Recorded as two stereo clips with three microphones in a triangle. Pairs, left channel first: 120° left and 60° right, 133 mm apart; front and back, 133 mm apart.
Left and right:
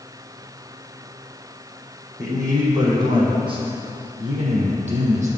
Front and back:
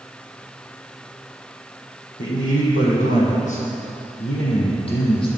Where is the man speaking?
5° left, 6 m; by 5.3 s 50° right, 5 m.